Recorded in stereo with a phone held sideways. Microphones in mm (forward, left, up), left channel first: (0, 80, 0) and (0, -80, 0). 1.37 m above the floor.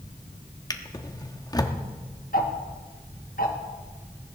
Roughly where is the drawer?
Left.